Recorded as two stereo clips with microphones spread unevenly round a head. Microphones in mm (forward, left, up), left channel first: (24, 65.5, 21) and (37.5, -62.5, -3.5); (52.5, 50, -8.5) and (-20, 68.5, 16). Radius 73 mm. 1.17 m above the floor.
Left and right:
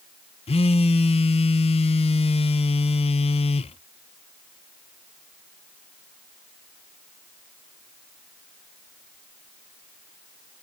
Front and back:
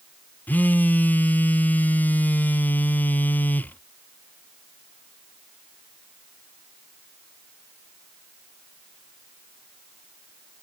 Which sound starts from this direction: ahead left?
A phone buzzing, at 0.5 s.